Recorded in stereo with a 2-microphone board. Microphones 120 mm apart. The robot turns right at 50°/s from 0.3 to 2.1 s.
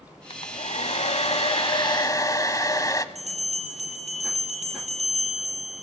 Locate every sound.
0.3 s a hair dryer: 55° left, 0.8 m; by 3.0 s 145° left, 0.8 m
3.1 s a bell: 90° right, 9.5 m